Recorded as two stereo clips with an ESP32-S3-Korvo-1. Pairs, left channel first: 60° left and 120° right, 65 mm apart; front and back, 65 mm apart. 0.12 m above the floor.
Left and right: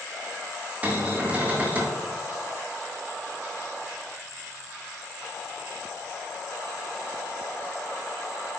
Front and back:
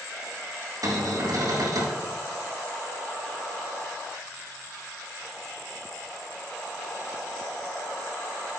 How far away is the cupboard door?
About 3.5 m.